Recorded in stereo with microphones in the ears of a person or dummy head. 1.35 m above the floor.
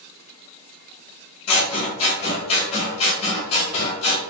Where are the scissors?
30° left (ahead or behind), 1.3 m.